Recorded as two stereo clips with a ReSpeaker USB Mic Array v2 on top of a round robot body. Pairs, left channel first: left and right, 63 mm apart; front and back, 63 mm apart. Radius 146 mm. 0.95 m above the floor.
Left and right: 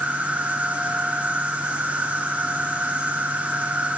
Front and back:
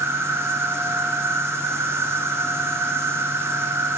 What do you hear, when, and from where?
0.0 s an insect: 150° right, 0.8 m